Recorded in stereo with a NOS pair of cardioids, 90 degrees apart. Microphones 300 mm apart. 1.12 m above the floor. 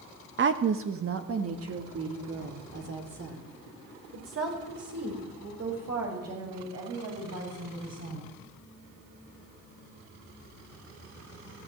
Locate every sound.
0.4 s a woman speaking: 40° right, 1.4 m; by 8.3 s 55° right, 9 m